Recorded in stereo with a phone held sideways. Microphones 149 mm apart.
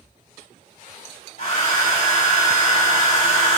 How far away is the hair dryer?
About 1.7 m.